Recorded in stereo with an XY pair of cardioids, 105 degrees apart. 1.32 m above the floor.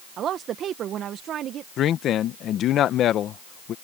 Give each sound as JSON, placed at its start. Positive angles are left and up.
{"t": 0.2, "sound": "a woman speaking", "azimuth_deg": -65}
{"t": 1.8, "sound": "a man speaking", "azimuth_deg": 70}